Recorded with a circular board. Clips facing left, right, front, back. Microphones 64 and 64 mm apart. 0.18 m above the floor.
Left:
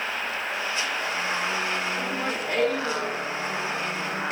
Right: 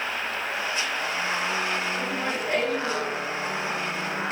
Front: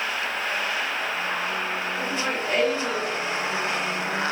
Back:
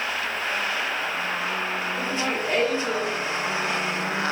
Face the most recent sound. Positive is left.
turn(degrees=-20)